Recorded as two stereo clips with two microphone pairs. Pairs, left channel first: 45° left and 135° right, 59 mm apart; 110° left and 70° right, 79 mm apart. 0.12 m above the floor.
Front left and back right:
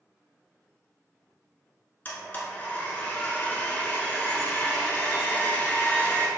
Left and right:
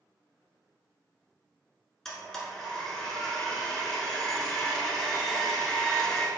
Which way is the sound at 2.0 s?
35° left.